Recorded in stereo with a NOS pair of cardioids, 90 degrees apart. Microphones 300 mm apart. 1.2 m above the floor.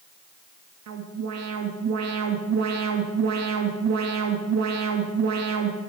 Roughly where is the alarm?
Ahead right.